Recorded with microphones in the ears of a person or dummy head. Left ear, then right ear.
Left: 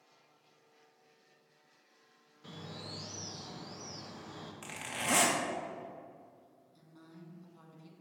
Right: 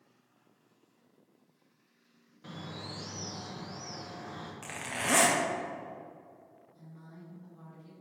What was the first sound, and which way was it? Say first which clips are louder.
A bird: right 3 dB; 5° left (ahead or behind).